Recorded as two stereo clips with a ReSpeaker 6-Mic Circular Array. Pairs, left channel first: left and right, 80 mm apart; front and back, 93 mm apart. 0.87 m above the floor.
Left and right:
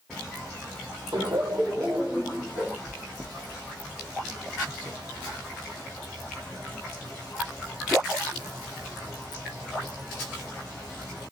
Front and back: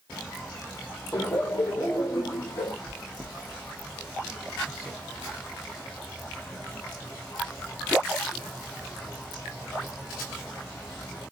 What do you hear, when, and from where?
1.1 s laughter: 65° right, 0.5 m; by 2.8 s 5° right, 1.1 m
2.9 s chewing: 50° right, 0.7 m